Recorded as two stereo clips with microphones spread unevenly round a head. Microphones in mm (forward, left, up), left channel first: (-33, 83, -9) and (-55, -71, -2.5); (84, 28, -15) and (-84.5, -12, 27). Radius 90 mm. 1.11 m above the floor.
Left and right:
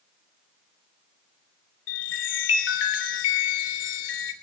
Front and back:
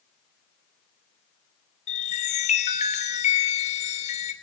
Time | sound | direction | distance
1.9 | a chime | 65° left | 3 m